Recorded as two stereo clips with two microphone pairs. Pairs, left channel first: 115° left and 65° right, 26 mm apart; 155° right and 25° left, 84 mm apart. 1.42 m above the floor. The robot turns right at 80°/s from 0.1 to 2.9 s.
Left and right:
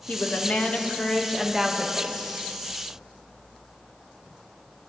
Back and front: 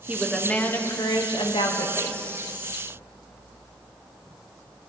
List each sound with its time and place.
0.1 s a woman speaking: 95° left, 1.3 m; by 2.2 s 95° right, 1.3 m